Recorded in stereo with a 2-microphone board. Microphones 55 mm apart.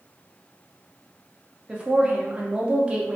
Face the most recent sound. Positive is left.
turn(degrees=-20)  # may be behind; listen again after turning